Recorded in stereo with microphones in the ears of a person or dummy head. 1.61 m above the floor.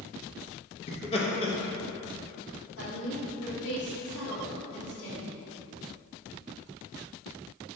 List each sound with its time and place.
0.9 s laughter: 30° left (ahead or behind), 0.5 m
2.8 s a woman speaking: 80° left, 1.7 m